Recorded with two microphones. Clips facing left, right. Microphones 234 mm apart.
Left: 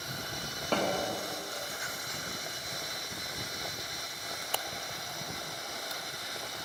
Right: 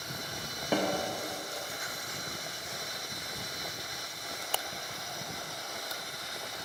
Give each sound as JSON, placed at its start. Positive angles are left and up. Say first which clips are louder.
{"t": 0.7, "sound": "a snare drum", "louder": "right 1 dB", "side_deg": -10, "distance_m": 0.6}